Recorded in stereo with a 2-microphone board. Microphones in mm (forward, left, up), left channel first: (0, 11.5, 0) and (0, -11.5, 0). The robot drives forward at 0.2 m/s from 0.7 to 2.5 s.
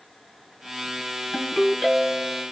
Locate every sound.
1.3 s a ringtone: 25° left (ahead or behind), 1.0 m; by 2.4 s 30° left (ahead or behind), 0.8 m